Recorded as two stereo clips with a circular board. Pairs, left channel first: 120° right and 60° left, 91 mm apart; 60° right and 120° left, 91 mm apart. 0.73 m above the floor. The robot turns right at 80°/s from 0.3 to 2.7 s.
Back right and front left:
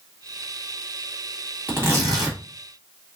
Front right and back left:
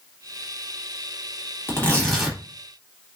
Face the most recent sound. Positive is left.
turn(degrees=75)